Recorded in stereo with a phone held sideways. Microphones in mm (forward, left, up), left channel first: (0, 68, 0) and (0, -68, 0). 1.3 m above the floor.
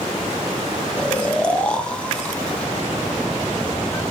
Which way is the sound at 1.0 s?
10° left (ahead or behind).